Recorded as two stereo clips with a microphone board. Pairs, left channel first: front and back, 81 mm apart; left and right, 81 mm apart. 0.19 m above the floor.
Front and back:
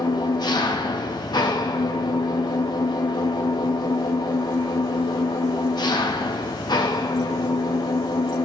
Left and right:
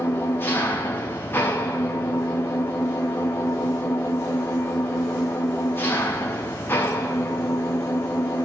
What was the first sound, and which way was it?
An engine running, 30° left.